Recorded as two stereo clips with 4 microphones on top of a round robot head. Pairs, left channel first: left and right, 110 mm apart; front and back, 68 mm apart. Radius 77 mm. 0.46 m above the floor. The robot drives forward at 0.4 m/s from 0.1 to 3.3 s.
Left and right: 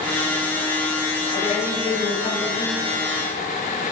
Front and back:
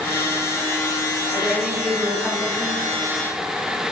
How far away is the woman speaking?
About 2.5 m.